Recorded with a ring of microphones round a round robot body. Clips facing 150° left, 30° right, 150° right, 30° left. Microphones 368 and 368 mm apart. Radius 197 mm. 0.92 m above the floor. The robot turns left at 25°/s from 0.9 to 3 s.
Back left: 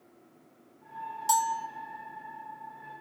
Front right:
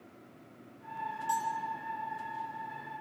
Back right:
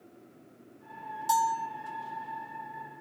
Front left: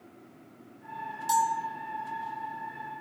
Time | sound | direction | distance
1.3 | a bell | 120° left | 1.9 m